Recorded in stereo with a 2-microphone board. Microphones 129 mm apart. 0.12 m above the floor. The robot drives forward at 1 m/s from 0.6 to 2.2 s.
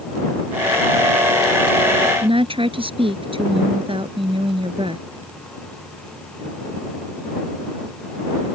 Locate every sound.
2.2 s a woman speaking: 45° right (ahead or behind)